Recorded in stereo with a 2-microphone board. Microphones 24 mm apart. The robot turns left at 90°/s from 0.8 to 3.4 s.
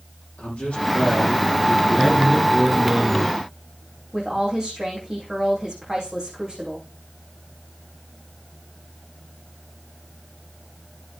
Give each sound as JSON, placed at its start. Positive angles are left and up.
{"t": 0.4, "sound": "a man speaking", "azimuth_deg": 80, "distance_m": 9.0}
{"t": 2.0, "sound": "a man speaking", "azimuth_deg": 15, "distance_m": 3.0}
{"t": 4.1, "sound": "a woman speaking", "side_deg": -35, "distance_m": 9.5}